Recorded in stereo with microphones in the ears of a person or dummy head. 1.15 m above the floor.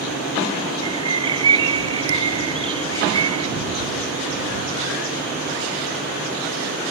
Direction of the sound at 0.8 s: 30° right (ahead or behind).